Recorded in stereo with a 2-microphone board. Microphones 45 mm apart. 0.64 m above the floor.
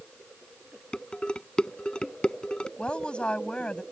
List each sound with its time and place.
0.9 s dishes clattering: 20° left (ahead or behind)
2.8 s a woman speaking: 25° left (ahead or behind)